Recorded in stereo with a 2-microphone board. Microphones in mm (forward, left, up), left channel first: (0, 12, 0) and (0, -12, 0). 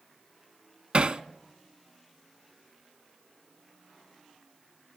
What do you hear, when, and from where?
0.9 s hammering: 45° right (ahead or behind), 0.7 m